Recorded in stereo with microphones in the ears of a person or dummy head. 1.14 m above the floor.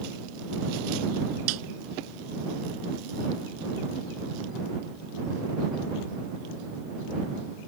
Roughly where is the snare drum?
Right.